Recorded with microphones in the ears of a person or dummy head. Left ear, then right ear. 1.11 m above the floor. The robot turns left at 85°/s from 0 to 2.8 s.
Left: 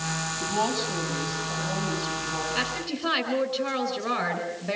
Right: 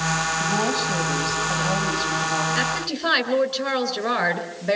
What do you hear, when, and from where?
0.4 s a woman speaking: 5° right, 5.5 m; by 2.5 s straight behind, 5.5 m
2.5 s a woman speaking: 5° left (ahead or behind), 4 m; by 4.8 s 15° right (ahead or behind), 4 m